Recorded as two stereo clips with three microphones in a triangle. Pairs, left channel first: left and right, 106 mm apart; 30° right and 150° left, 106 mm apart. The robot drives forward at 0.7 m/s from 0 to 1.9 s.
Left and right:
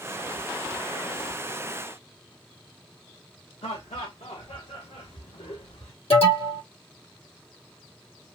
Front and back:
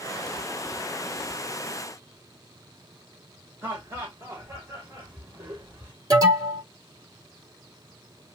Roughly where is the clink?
No clink in this recording.